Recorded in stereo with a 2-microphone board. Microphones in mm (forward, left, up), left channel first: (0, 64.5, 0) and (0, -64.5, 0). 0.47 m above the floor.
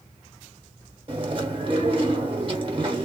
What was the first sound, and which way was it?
Chewing, 40° right (ahead or behind).